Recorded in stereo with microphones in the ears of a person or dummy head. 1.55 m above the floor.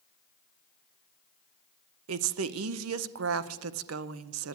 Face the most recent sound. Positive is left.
turn(degrees=-75)  # may be behind; listen again after turning